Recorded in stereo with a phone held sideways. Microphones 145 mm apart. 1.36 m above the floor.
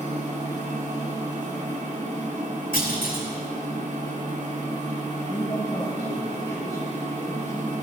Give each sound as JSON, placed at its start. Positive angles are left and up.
{"t": 0.0, "sound": "a machine running", "side_deg": -60, "distance_m": 3.5}
{"t": 2.7, "sound": "a clunk", "side_deg": 80, "distance_m": 3.0}
{"t": 5.3, "sound": "a man speaking", "side_deg": 20, "distance_m": 1.8}